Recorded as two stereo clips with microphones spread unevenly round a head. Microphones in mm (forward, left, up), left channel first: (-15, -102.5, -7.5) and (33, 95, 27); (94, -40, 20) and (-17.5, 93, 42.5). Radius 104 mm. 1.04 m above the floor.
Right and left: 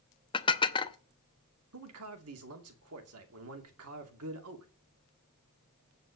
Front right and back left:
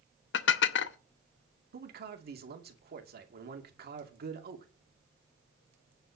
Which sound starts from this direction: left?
A man speaking, at 1.7 s.